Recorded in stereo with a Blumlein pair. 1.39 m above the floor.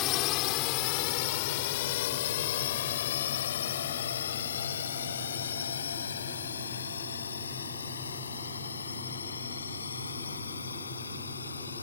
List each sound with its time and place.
0.0 s a drone: 40° left; by 11.8 s 75° left